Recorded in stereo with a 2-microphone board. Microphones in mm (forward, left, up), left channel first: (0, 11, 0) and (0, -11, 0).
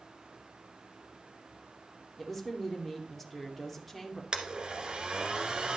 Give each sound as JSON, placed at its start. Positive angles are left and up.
{"t": 2.2, "sound": "a woman speaking", "side_deg": 5, "distance_m": 2.5}
{"t": 4.3, "sound": "a blender", "side_deg": -50, "distance_m": 1.6}